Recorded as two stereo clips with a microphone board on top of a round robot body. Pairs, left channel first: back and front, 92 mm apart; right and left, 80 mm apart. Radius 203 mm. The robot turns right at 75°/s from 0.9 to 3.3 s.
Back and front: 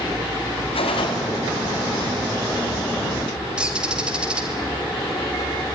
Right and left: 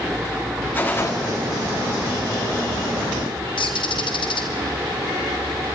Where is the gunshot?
160° right, 1.7 m; by 1.1 s 140° right, 1.7 m.